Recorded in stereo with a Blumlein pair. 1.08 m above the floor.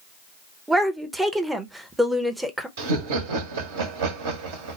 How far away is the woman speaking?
About 0.8 m.